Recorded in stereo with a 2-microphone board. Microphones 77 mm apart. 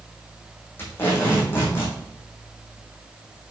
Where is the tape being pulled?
30° left (ahead or behind), 3.5 m.